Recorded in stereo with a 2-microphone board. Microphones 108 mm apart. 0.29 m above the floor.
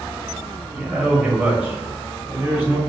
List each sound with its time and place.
0.7 s a man speaking: 10° right (ahead or behind), 1.0 m; by 2.8 s 20° right (ahead or behind), 1.6 m